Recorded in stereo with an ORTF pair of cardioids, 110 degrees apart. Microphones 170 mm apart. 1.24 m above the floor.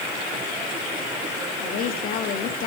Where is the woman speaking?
60° left, 2 m.